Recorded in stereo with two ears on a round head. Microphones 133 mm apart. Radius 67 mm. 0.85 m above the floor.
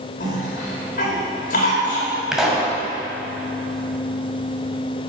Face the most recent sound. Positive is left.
turn(degrees=-5)  # may be behind; listen again after turning